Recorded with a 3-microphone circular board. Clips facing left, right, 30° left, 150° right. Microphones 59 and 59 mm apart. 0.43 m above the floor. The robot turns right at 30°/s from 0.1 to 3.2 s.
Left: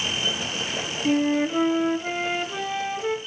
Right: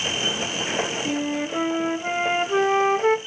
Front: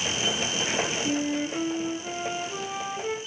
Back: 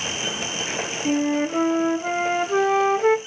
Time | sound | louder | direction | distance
1.1 | a flute | left 4 dB, back 6 dB | 165° left | 0.8 m